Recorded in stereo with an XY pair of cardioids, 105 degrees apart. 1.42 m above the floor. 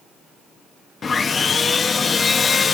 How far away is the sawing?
About 0.8 m.